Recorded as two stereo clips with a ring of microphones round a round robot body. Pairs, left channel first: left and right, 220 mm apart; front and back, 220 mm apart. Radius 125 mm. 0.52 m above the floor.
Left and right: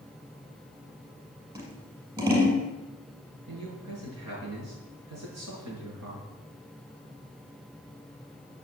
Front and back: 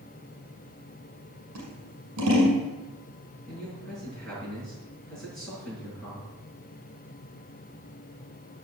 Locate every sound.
1.6 s scissors: 160° right, 6 m
3.5 s a man speaking: 85° right, 6.5 m